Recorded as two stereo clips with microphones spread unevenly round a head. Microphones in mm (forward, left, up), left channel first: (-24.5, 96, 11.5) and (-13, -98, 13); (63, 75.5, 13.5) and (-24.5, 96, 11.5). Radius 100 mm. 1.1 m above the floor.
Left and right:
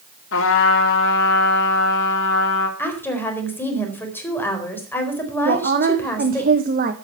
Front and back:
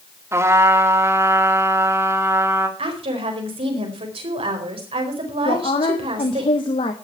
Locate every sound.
0.3 s a trumpet: 110° left, 2.5 m
2.8 s a woman speaking: 175° left, 4 m
5.5 s a woman speaking: 45° right, 1.1 m